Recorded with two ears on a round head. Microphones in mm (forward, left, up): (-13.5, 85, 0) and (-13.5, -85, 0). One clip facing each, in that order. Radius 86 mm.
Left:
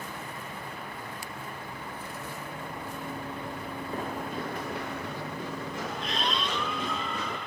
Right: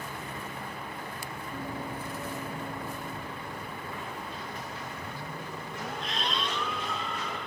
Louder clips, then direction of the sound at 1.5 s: Right 4 dB; 35° right (ahead or behind).